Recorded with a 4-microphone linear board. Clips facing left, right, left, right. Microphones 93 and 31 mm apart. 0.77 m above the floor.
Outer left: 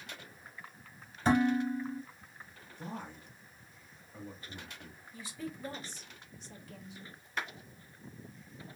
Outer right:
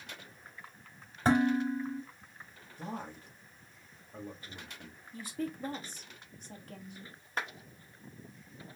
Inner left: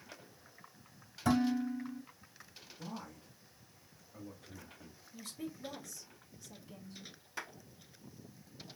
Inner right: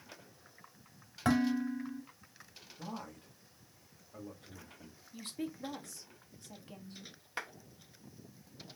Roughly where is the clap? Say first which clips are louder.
Outer right 1 dB, inner right 3 dB; right.